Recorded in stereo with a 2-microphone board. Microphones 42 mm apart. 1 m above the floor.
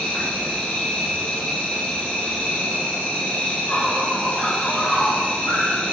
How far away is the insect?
About 1.0 m.